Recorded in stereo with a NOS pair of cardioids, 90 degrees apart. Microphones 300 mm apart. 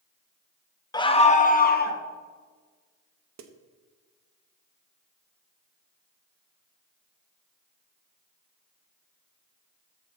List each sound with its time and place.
0.9 s a scream: 15° left, 1.1 m; by 2.0 s 35° left, 2 m
3.4 s a snare drum: 65° right, 1.2 m